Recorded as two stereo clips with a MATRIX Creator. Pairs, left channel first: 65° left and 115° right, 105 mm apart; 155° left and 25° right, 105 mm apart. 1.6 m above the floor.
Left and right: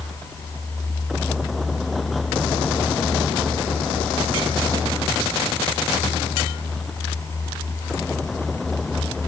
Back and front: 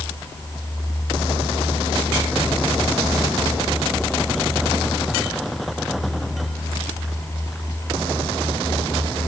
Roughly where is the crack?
No crack in this recording.